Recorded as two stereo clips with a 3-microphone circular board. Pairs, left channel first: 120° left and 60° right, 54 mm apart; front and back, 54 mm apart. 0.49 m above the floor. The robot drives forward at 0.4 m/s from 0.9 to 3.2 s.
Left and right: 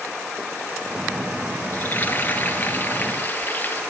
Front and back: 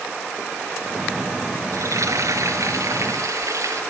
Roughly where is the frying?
Behind.